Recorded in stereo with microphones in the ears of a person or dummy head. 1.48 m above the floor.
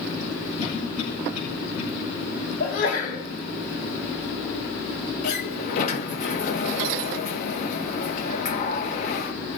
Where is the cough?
55° left (ahead or behind), 10 m.